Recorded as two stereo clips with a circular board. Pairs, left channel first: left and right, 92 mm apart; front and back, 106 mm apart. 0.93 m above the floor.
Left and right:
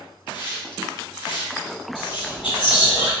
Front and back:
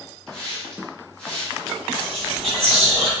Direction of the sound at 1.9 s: 85° left.